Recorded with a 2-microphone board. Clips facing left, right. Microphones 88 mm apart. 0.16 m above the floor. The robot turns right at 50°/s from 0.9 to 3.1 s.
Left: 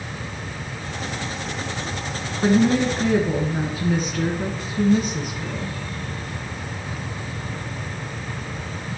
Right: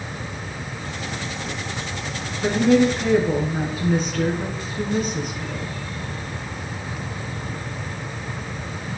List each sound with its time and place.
2.4 s a woman speaking: 145° left, 2.0 m; by 5.8 s 175° left, 2.0 m